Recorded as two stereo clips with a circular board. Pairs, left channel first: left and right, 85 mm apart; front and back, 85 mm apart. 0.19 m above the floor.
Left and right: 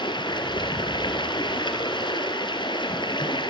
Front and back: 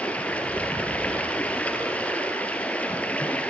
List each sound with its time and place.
0.0 s running water: 75° left, 2.0 m